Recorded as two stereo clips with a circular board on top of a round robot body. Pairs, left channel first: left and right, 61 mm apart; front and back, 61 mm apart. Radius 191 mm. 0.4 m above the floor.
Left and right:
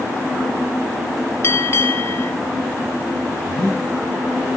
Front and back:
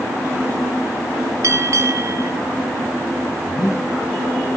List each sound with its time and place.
1.4 s a bell: 140° left, 0.7 m
3.5 s breathing: 15° left, 5 m